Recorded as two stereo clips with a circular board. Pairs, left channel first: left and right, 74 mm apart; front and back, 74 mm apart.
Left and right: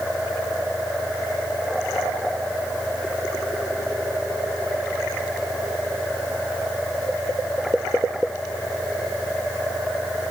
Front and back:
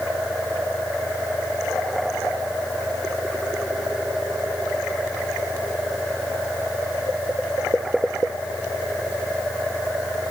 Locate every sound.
Only background noise.